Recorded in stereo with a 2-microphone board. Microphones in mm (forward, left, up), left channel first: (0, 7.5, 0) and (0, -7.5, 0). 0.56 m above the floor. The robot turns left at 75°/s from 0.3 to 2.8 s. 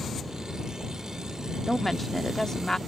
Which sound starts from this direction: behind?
A woman speaking, at 1.7 s.